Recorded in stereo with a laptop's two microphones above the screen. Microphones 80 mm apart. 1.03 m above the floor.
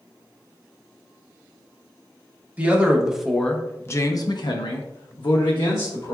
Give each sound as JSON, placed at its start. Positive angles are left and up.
{"t": 2.6, "sound": "a man speaking", "side_deg": -20, "distance_m": 0.8}